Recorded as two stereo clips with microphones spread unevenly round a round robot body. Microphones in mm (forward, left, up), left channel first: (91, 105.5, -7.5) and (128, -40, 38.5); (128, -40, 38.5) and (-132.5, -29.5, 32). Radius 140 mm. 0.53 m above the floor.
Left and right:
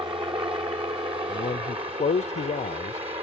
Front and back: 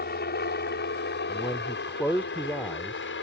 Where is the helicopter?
20° right; by 3.2 s 25° right.